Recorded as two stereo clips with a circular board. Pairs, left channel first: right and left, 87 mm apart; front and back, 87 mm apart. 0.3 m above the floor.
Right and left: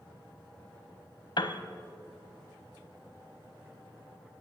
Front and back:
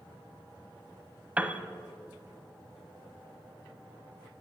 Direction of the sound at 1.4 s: 105° right.